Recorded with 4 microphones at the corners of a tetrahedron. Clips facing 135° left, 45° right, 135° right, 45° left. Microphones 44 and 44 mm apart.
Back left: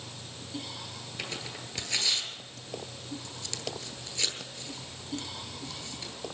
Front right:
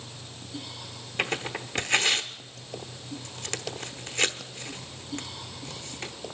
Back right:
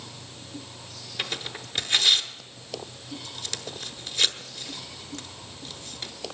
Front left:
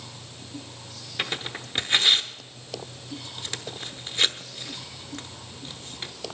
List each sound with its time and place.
1.2 s tearing paper: 20° right, 0.9 m